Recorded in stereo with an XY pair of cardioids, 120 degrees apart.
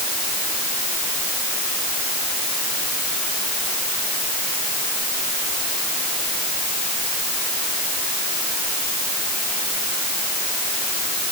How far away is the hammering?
I don't hear hammering.